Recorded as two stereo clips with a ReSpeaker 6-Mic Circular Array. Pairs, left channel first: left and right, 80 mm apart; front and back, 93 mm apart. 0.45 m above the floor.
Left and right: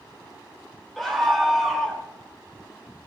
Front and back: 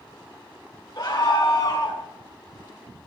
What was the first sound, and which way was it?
A scream, straight ahead.